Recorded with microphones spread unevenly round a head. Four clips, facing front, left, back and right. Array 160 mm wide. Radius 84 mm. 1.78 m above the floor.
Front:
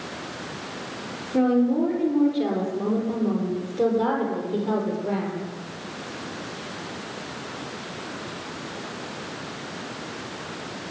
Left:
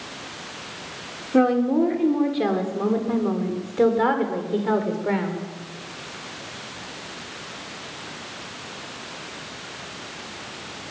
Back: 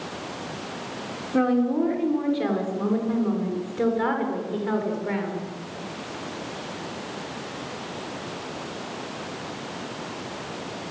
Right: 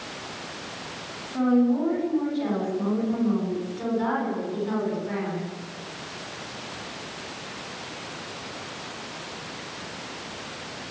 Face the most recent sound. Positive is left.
turn(degrees=70)